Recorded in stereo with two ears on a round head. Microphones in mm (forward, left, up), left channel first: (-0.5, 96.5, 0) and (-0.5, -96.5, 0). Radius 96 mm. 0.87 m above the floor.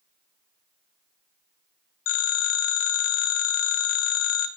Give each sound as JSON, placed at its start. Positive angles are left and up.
{"t": 2.1, "sound": "a phone ringing", "side_deg": 80, "distance_m": 1.2}